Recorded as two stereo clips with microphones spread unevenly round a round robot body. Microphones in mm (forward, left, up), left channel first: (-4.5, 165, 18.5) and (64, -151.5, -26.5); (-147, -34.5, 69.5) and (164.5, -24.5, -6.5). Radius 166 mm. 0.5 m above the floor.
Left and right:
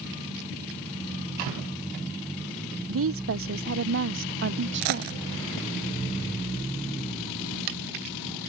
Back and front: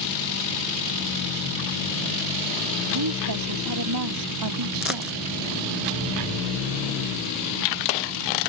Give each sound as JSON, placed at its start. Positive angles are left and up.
{"t": 2.9, "sound": "a woman speaking", "azimuth_deg": -30}
{"t": 4.8, "sound": "a dropped coin", "azimuth_deg": -85}